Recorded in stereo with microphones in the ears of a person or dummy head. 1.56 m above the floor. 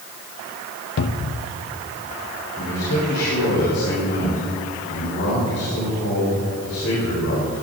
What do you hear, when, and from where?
1.0 s a cupboard door: 60° left (ahead or behind), 0.5 m
2.6 s a man speaking: 80° left, 3.5 m